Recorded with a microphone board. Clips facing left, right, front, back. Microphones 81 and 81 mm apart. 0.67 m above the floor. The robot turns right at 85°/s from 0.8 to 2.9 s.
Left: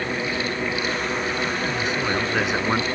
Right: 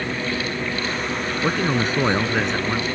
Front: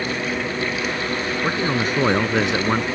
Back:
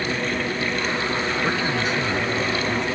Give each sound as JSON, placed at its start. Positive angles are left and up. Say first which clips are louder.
{"t": 1.4, "sound": "a man speaking", "louder": "right 4 dB, front 2 dB", "azimuth_deg": -80}